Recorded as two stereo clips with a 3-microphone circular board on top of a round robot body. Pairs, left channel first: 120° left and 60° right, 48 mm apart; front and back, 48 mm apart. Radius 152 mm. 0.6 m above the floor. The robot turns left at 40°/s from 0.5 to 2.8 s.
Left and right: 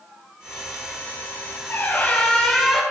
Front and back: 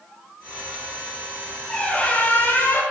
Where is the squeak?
75° left, 1.1 m; by 2.8 s 30° left, 1.1 m.